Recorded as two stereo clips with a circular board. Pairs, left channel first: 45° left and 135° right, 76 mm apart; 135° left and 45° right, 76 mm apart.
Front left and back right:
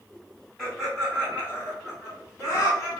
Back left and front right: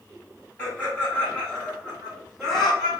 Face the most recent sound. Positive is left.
turn(degrees=50)